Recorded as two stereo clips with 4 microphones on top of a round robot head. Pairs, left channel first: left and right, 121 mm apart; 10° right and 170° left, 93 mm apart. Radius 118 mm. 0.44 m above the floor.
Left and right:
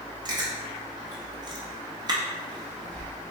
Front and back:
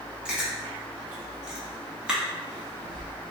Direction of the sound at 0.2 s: 115° right.